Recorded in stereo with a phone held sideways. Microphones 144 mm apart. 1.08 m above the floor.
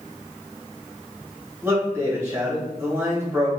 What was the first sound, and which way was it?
A man speaking, 15° right (ahead or behind).